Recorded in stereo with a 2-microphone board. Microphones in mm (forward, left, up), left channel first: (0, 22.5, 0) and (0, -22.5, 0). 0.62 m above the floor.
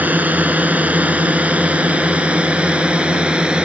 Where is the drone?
35° right (ahead or behind); by 3.7 s 20° right (ahead or behind).